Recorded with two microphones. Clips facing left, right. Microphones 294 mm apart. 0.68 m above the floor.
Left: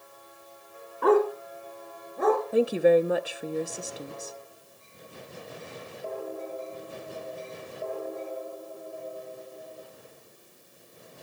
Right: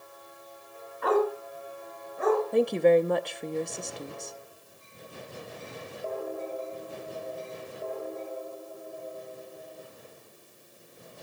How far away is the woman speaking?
About 0.6 m.